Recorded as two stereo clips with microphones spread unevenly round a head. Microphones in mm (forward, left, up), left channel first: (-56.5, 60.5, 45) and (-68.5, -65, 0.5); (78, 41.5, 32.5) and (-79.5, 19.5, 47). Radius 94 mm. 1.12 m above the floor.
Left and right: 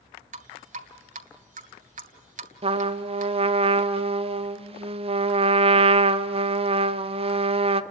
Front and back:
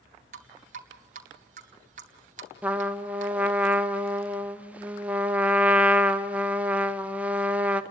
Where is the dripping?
120° right, 2 m.